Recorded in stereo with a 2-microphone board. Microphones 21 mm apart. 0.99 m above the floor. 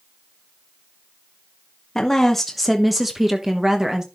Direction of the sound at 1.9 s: 20° left (ahead or behind).